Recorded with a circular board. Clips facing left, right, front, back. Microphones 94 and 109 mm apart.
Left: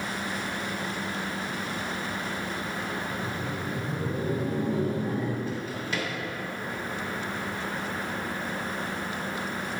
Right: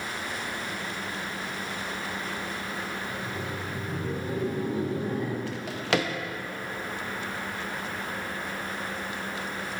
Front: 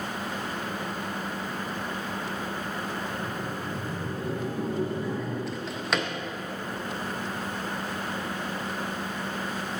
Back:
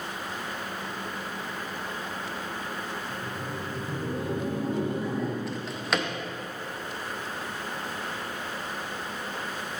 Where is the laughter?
110° left, 1.9 m.